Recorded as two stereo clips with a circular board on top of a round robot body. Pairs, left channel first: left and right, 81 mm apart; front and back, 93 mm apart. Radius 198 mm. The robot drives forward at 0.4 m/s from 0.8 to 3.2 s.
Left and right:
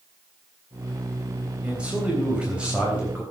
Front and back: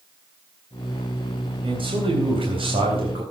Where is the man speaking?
165° right, 3.5 m; by 3.2 s 170° right, 4 m.